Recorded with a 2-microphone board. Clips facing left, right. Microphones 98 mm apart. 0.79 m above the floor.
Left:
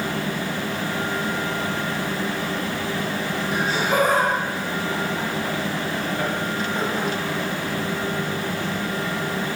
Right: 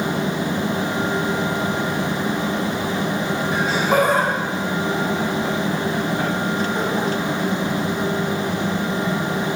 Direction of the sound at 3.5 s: 45° right (ahead or behind).